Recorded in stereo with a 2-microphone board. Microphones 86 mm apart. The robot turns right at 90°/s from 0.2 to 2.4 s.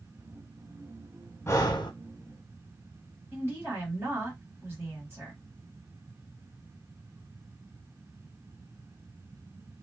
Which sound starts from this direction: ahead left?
Breathing, at 1.5 s.